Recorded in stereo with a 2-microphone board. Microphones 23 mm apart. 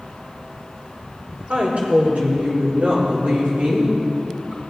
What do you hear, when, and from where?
1.5 s a woman speaking: 70° right (ahead or behind), 3.5 m; by 4.6 s 35° right (ahead or behind), 5.5 m